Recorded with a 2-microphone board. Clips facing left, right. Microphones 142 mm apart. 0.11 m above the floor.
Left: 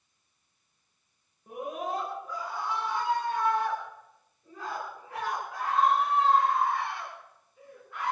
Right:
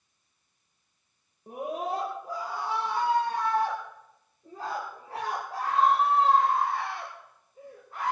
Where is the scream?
35° right (ahead or behind), 7 m.